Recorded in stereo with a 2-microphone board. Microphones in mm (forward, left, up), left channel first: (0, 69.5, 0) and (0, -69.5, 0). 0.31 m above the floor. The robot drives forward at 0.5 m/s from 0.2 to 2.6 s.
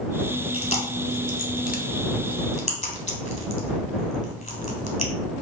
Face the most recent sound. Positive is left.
turn(degrees=55)  # may be behind; listen again after turning